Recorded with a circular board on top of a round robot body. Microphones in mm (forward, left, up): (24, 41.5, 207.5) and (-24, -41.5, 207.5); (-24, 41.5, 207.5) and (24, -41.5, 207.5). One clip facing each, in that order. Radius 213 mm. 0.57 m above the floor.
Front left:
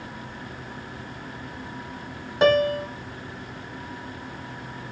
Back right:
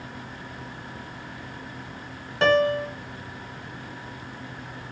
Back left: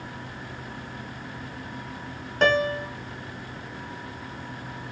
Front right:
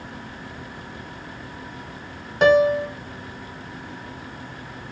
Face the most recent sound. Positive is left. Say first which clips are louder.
# front left 1 dB, front right 7 dB
turn(degrees=5)